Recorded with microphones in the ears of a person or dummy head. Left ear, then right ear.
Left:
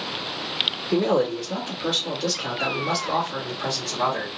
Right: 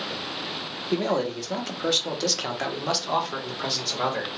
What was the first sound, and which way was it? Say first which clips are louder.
A man speaking: left 2 dB; 30° right (ahead or behind).